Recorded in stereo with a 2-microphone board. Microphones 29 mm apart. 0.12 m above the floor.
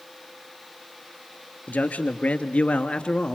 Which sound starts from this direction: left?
A man speaking, at 1.7 s.